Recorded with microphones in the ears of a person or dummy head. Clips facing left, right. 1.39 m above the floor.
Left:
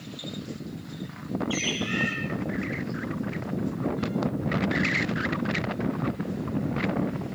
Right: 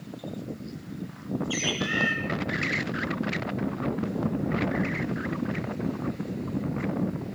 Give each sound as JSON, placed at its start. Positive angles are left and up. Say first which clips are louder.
{"t": 1.5, "sound": "a bird", "louder": "left 1 dB", "side_deg": -20, "distance_m": 4.0}